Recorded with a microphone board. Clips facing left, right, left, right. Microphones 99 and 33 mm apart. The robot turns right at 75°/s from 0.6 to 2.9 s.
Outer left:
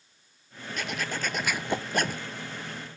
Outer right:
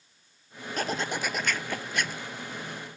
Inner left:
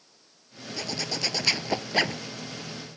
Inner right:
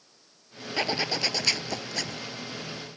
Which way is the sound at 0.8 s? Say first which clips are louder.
Outer right 3 dB, inner right 4 dB; 45° right.